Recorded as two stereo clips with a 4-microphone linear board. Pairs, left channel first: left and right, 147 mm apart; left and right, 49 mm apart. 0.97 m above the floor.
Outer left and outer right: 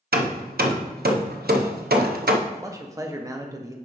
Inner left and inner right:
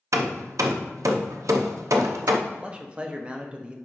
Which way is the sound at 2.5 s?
20° right (ahead or behind).